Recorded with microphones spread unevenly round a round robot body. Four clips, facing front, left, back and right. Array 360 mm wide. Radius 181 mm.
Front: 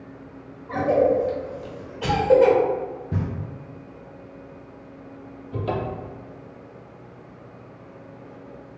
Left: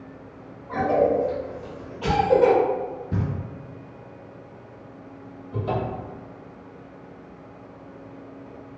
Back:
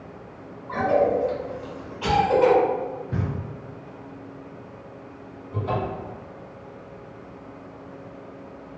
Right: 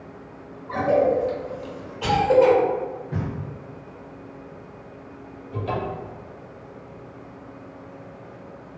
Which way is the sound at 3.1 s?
50° left.